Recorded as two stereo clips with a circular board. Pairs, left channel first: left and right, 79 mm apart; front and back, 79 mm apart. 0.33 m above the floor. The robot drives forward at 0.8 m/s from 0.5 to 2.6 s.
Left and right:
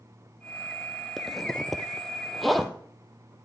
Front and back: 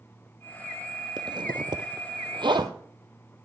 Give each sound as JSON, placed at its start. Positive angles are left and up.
{"t": 1.2, "sound": "a zipper", "azimuth_deg": 180, "distance_m": 0.7}